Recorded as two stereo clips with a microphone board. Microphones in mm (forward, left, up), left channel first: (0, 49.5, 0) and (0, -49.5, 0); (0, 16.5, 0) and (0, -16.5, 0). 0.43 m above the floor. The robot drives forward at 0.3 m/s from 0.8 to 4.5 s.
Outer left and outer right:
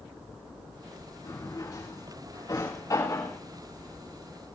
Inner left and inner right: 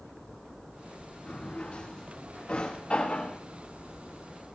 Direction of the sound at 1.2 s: 35° left (ahead or behind).